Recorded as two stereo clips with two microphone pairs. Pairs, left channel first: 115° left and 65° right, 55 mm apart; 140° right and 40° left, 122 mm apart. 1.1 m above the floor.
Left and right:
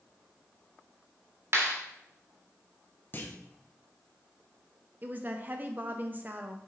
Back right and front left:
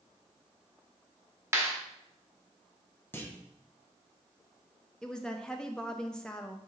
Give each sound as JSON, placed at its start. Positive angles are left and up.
{"t": 1.5, "sound": "a clap", "azimuth_deg": -25, "distance_m": 1.7}
{"t": 3.1, "sound": "a clunk", "azimuth_deg": 155, "distance_m": 0.9}
{"t": 5.0, "sound": "a woman speaking", "azimuth_deg": -60, "distance_m": 0.6}